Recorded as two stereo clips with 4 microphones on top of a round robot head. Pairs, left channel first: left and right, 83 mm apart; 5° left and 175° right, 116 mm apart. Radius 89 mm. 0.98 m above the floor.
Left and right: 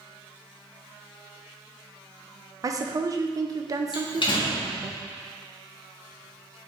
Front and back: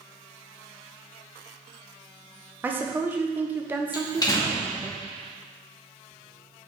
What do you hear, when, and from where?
2.6 s a woman speaking: 110° right, 0.7 m
3.9 s a door slam: 60° left, 1.5 m